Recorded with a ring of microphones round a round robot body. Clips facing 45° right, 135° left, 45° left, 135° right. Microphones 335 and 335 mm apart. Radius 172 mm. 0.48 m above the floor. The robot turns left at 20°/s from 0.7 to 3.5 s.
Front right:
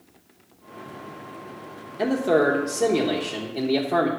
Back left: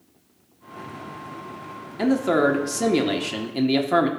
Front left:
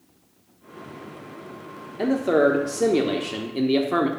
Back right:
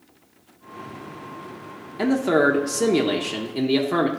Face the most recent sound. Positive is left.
turn(degrees=145)